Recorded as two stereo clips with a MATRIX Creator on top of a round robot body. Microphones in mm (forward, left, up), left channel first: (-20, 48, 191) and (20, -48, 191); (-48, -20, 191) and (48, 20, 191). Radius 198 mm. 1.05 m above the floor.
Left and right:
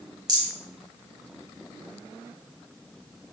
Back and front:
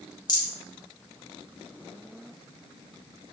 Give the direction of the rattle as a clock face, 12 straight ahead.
4 o'clock.